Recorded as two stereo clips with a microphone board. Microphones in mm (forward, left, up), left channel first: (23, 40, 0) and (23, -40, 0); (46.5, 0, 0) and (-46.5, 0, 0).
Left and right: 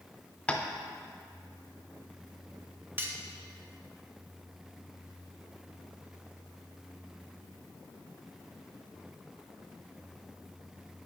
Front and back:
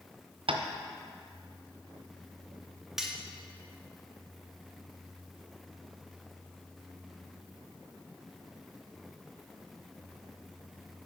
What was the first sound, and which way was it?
Tapping, 165° left.